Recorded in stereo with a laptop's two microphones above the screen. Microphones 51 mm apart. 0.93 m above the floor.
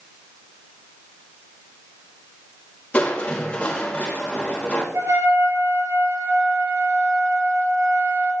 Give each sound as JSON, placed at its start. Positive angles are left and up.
{"t": 2.9, "sound": "crushing", "side_deg": 25, "distance_m": 1.7}
{"t": 4.9, "sound": "a trumpet", "side_deg": -75, "distance_m": 3.5}